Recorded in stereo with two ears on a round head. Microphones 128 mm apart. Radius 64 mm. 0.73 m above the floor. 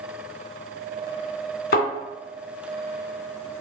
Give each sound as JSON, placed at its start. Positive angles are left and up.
{"t": 1.7, "sound": "a thud", "side_deg": 80, "distance_m": 2.0}